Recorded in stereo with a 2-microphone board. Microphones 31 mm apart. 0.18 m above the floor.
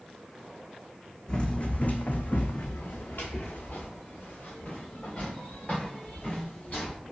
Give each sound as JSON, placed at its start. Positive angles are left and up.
{"t": 1.3, "sound": "running footsteps", "side_deg": 25, "distance_m": 0.5}